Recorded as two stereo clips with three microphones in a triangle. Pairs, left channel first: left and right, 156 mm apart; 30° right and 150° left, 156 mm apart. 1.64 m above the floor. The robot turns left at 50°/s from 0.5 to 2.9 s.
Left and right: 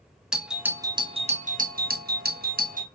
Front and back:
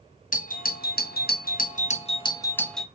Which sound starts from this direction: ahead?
A doorbell, at 0.3 s.